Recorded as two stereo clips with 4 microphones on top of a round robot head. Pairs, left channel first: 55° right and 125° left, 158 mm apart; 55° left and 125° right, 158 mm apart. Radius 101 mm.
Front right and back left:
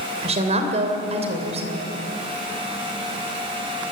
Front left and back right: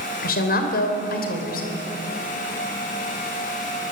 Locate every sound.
0.2 s a woman speaking: 75° left, 3 m